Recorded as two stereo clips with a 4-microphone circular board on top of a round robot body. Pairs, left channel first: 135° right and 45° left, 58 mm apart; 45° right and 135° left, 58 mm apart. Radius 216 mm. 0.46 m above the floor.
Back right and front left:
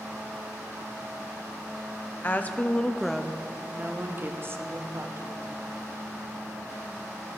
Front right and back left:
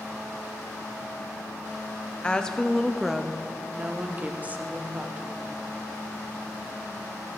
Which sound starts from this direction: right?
A woman speaking, at 2.2 s.